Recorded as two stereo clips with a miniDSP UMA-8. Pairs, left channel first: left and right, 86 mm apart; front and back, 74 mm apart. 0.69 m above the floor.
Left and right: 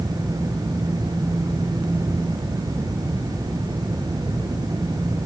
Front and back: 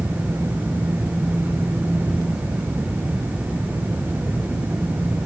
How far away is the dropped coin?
No dropped coin in this recording.